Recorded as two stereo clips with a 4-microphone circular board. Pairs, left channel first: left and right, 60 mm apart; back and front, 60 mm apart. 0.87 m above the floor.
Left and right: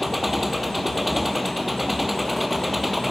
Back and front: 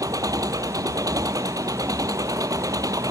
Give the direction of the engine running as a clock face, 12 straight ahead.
12 o'clock.